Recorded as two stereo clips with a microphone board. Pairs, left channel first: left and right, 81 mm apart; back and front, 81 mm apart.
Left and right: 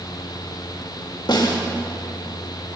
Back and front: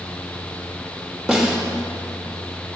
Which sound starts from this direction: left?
A snare drum, at 1.3 s.